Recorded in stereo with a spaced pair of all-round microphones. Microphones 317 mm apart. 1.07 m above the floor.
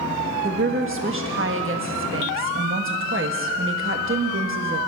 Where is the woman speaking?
40° right (ahead or behind), 1.4 m.